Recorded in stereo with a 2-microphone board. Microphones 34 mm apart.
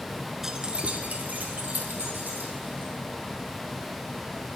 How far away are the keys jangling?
About 0.8 m.